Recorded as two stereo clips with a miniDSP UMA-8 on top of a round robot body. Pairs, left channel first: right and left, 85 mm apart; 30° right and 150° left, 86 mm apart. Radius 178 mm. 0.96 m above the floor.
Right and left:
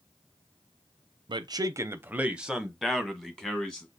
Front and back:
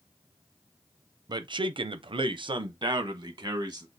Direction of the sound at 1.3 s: 115° left.